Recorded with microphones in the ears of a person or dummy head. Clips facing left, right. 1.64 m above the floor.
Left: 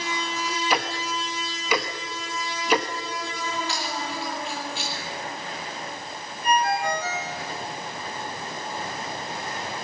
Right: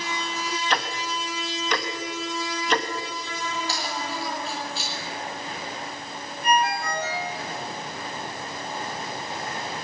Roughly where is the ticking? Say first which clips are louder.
Left 2 dB; centre.